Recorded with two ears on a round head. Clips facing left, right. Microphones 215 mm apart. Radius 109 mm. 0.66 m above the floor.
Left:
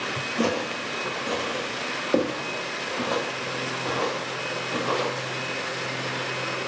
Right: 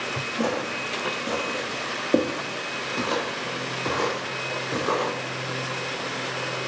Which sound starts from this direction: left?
Footsteps, at 0.4 s.